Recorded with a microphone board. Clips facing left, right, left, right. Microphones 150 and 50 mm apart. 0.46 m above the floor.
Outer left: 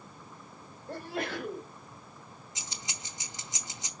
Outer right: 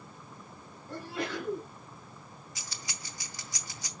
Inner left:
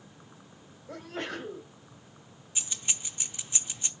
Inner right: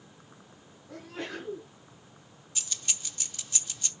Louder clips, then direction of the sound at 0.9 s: Outer left 1 dB, inner left 2 dB; 50° left (ahead or behind).